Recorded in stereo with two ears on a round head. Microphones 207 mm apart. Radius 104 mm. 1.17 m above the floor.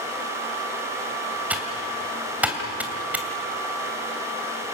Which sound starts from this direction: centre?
Typing on a keyboard, at 1.5 s.